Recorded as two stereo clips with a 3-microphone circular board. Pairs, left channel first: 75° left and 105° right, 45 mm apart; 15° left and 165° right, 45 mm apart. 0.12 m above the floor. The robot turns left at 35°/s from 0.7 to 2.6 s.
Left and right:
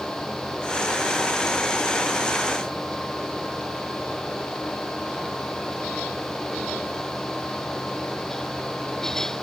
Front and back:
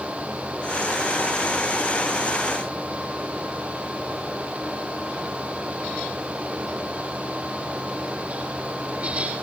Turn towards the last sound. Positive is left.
No sound to turn to.